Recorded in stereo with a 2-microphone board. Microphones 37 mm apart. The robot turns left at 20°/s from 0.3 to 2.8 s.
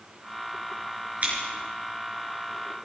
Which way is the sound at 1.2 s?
50° right (ahead or behind).